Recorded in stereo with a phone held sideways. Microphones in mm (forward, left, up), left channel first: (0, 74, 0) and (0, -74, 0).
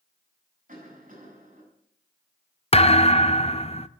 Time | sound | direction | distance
0.7 | a cough | 55° right (ahead or behind) | 8.5 m
2.7 | a thud | 40° left (ahead or behind) | 0.6 m